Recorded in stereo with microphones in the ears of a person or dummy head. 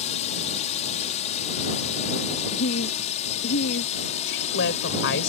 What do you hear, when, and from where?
0.0 s a drone: 35° left (ahead or behind); by 5.3 s 40° left (ahead or behind)
2.5 s a woman speaking: 70° left (ahead or behind)
4.3 s a woman speaking: 70° left (ahead or behind)